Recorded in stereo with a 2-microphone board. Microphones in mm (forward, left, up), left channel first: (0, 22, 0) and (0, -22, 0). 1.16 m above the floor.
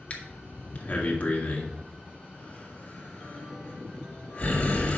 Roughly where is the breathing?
Left.